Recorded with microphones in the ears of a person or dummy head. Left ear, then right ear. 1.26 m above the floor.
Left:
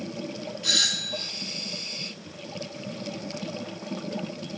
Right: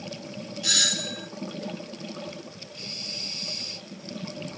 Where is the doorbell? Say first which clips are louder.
Even; 15° right (ahead or behind), 0.7 m.